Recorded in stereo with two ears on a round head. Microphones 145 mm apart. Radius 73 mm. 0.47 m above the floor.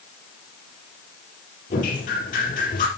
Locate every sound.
1.7 s dripping: 50° left (ahead or behind), 5 m